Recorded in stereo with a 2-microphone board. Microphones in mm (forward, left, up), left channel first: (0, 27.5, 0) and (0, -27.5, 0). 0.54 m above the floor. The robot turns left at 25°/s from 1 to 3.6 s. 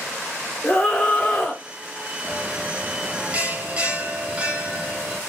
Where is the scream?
20° left (ahead or behind), 1.1 m; by 1.6 s 10° left (ahead or behind), 1.1 m.